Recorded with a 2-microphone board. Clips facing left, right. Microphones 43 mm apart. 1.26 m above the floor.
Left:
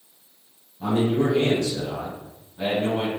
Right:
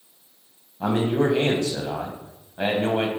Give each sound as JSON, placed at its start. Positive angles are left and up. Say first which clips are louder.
{"t": 0.8, "sound": "a man speaking", "louder": "even", "side_deg": -50, "distance_m": 1.1}